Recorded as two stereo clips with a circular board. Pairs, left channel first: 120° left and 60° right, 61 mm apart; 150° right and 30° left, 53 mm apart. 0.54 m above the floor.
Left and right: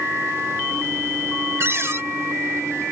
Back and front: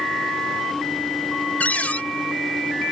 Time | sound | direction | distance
1.6 | a cupboard door | 95° right | ?